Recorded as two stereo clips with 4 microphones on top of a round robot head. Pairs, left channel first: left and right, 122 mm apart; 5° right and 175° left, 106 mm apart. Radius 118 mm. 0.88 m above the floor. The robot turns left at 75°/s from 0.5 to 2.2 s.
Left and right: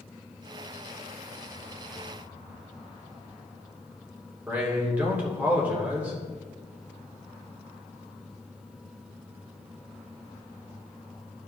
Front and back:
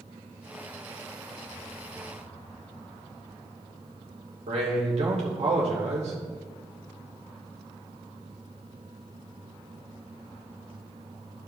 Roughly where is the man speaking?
Behind.